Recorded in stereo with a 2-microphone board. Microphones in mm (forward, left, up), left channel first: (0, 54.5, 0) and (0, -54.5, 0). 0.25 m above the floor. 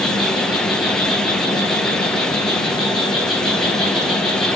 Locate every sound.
0.0 s an insect: 45° left (ahead or behind), 4 m